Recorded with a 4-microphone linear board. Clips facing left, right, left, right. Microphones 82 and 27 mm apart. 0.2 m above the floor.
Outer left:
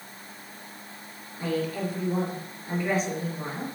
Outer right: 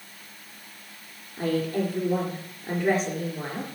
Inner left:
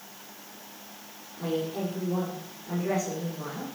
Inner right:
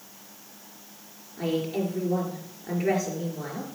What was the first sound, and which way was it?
A woman speaking, 40° right (ahead or behind).